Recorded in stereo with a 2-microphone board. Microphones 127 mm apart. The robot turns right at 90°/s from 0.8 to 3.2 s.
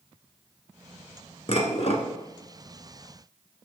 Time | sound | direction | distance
1.5 | dishes clattering | 65° left | 1.2 m